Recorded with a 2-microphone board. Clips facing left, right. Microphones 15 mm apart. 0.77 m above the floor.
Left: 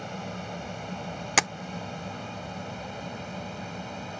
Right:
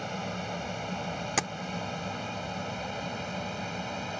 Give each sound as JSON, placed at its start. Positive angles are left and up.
{"t": 0.0, "sound": "an aircraft", "side_deg": -10}
{"t": 1.4, "sound": "tapping", "side_deg": 35}